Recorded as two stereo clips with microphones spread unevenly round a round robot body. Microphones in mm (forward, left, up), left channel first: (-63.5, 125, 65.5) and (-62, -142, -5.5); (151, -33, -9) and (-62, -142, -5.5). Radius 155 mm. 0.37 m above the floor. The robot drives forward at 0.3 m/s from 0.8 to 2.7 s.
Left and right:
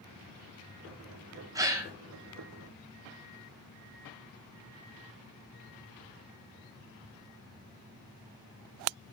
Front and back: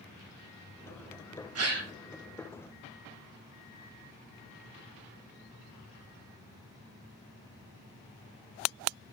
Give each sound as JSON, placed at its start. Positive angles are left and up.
{"t": 1.6, "sound": "a gasp", "azimuth_deg": -160, "distance_m": 1.5}